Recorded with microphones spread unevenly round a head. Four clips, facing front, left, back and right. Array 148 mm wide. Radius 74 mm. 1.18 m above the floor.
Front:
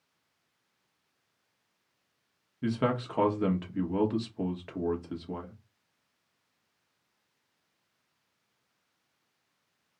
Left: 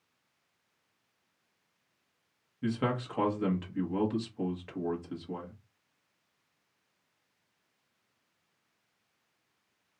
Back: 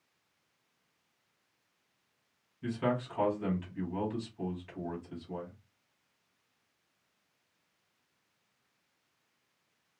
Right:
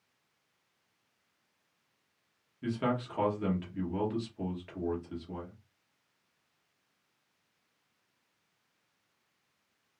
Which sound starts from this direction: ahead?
A man speaking, at 2.6 s.